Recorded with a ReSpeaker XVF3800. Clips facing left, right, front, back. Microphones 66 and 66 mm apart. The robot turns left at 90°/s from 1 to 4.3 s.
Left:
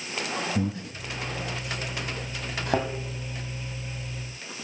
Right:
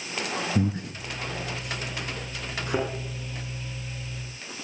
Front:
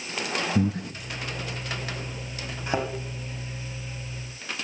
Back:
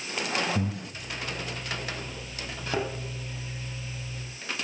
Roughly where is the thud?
Left.